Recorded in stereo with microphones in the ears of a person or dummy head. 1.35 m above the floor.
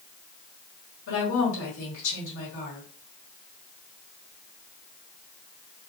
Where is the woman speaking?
70° left (ahead or behind), 1.9 m.